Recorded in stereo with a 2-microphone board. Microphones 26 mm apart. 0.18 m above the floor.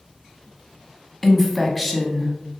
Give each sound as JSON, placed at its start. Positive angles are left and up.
{"t": 1.2, "sound": "a woman speaking", "side_deg": 0, "distance_m": 1.0}